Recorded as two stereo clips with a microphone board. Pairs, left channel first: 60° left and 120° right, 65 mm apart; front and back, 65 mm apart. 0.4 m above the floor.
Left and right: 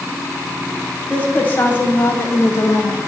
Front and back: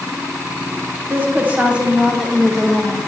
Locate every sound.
1.1 s a woman speaking: 125° left, 3 m; by 3.0 s 80° left, 2.5 m